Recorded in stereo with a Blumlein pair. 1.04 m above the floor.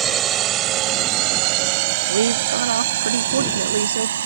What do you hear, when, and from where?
0.0 s a drone: 30° right; by 4.3 s 65° right
2.1 s a woman speaking: 65° right